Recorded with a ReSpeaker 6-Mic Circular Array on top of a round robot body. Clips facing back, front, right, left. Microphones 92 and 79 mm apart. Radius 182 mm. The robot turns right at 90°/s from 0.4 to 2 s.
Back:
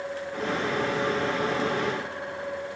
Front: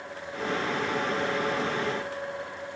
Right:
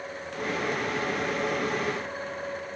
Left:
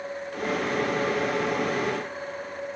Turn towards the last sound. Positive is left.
No sound to turn to.